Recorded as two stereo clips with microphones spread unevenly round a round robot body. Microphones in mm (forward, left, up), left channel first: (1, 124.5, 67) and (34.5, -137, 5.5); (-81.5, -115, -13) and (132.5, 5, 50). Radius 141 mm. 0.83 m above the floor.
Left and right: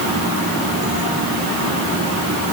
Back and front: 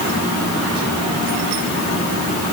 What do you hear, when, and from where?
Only background noise.